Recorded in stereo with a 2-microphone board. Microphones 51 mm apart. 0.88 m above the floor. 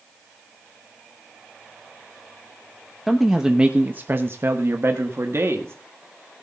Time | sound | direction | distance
3.1 | a man speaking | centre (ahead or behind) | 1.2 m